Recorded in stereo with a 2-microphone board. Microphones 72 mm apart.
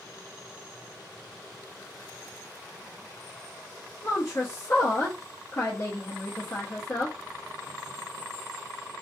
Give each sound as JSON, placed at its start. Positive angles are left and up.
{"t": 4.0, "sound": "a woman speaking", "side_deg": 30, "distance_m": 0.5}